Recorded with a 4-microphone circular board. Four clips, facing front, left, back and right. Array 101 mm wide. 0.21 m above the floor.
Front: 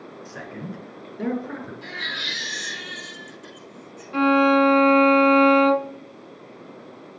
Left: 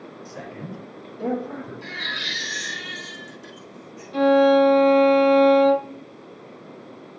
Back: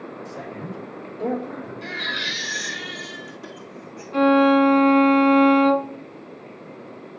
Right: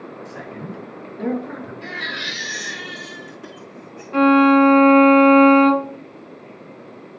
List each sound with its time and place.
0.2 s a man speaking: 25° right, 3 m; by 1.7 s 35° right, 4 m
1.8 s a baby crying: 100° right, 1.9 m
4.1 s a violin: 85° right, 0.6 m